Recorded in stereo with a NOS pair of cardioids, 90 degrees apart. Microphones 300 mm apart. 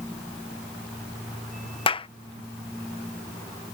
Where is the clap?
20° left.